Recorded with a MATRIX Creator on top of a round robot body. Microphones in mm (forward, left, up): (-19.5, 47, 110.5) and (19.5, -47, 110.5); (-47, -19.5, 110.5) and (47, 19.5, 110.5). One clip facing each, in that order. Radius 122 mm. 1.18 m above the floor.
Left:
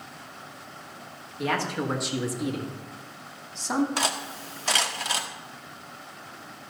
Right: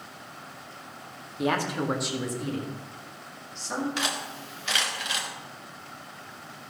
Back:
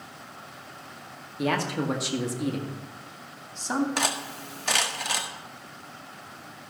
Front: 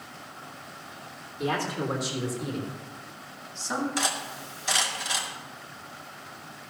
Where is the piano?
No piano in this recording.